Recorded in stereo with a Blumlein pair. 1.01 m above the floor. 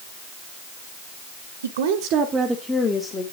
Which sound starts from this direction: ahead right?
A woman speaking, at 1.6 s.